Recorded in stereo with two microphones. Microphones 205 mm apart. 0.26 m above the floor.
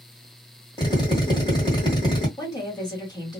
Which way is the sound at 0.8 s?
20° left (ahead or behind).